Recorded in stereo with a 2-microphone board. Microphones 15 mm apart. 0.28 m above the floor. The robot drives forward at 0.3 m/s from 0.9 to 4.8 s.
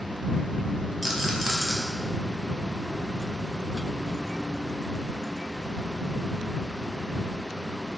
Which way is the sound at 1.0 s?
5° right (ahead or behind).